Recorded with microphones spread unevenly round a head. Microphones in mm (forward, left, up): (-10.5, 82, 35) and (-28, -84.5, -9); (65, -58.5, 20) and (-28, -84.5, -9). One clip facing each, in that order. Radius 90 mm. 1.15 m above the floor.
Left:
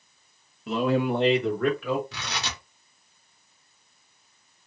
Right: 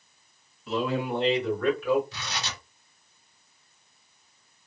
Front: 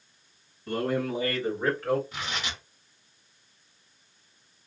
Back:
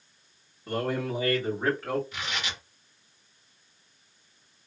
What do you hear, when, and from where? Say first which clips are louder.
0.7 s a man speaking: left 4 dB, front 1 dB; 125° left, 1.3 m; by 2.0 s 105° left, 2.0 m
2.1 s tearing paper: left 1 dB, even; 70° left, 1.0 m